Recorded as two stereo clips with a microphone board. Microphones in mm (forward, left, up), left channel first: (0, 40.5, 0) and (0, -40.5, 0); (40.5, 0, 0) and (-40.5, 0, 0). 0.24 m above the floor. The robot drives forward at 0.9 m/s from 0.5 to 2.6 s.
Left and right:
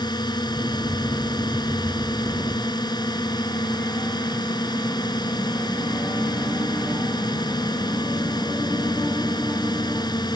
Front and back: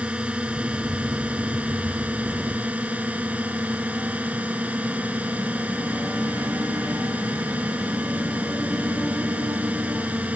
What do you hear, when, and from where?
0.0 s a drone: 105° left; by 10.4 s 110° left